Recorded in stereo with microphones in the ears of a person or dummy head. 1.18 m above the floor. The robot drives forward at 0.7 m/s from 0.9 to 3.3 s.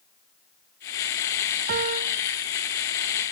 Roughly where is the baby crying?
I don't hear a baby crying.